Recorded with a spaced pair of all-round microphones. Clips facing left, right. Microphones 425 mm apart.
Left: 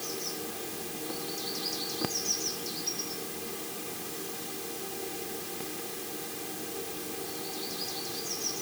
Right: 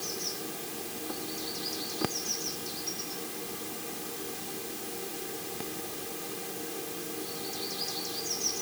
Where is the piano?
No piano in this recording.